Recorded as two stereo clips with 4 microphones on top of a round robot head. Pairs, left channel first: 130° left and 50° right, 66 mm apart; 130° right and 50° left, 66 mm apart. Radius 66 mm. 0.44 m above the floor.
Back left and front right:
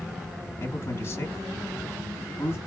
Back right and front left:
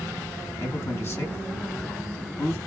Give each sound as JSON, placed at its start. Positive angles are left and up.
{"t": 0.6, "sound": "a man speaking", "azimuth_deg": 180, "distance_m": 3.0}